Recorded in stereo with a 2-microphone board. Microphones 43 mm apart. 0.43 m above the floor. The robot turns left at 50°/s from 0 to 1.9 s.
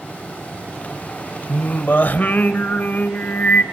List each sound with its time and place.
1.5 s singing: 60° left (ahead or behind), 1.2 m; by 3.6 s 45° left (ahead or behind), 1.2 m